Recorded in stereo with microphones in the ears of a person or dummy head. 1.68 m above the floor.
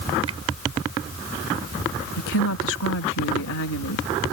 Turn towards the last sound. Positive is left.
turn(degrees=75)  # may be behind; listen again after turning